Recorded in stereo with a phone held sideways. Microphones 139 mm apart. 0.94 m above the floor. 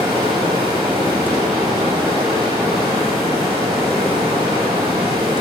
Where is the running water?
30° right (ahead or behind), 4 m.